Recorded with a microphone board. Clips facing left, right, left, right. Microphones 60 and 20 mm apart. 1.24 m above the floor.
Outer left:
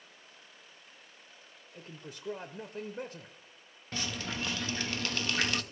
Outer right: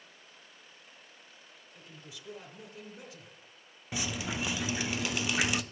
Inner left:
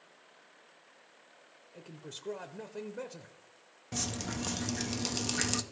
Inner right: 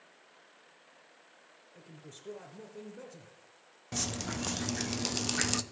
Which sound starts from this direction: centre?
Dripping, at 3.9 s.